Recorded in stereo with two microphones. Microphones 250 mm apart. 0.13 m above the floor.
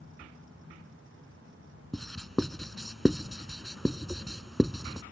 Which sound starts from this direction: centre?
Writing, at 1.9 s.